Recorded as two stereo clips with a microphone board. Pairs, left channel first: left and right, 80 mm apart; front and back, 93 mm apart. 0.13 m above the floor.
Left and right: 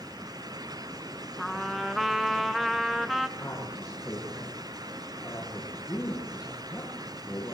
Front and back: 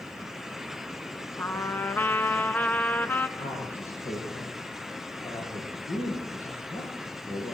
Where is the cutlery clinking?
I don't hear cutlery clinking.